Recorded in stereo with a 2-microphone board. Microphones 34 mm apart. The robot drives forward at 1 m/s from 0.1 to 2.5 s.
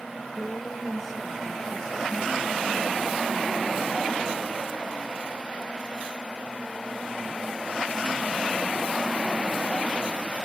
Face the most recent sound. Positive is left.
turn(degrees=0)  # may be behind; listen again after turning